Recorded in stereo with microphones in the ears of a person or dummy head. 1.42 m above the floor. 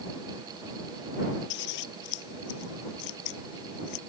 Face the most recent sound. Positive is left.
turn(degrees=75)  # may be behind; listen again after turning